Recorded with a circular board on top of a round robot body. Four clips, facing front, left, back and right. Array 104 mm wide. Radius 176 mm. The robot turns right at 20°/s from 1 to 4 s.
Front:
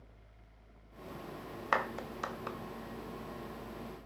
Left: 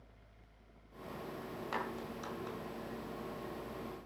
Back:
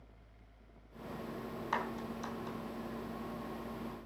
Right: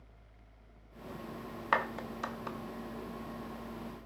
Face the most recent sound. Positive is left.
turn(degrees=0)